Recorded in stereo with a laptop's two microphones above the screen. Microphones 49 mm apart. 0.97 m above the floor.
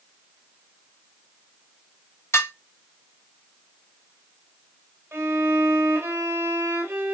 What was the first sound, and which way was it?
Dishes clattering, 70° left (ahead or behind).